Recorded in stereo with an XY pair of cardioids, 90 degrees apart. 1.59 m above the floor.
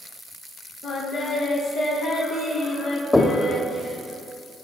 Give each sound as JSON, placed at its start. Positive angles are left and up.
{"t": 0.8, "sound": "singing", "azimuth_deg": 70, "distance_m": 4.5}
{"t": 3.1, "sound": "knocking", "azimuth_deg": 20, "distance_m": 2.5}